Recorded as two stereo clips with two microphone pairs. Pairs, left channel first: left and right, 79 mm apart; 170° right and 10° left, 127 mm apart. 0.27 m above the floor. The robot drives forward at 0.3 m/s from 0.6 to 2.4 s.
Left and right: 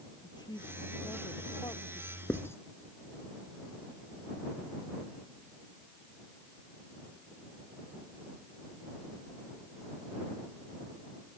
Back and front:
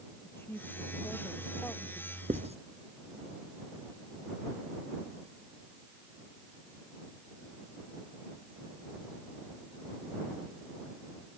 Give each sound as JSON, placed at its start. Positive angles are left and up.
{"t": 0.2, "sound": "a woman speaking", "azimuth_deg": 115}
{"t": 2.3, "sound": "writing", "azimuth_deg": 35}